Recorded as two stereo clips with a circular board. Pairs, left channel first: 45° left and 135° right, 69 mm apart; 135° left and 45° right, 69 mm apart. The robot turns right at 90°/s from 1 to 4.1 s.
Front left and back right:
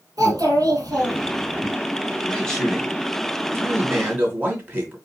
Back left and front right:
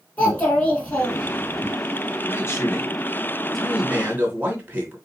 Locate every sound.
0.2 s a child speaking: 160° right, 3 m; by 1.7 s 95° right, 3 m
2.2 s a man speaking: 100° left, 2 m; by 5.0 s 95° right, 2 m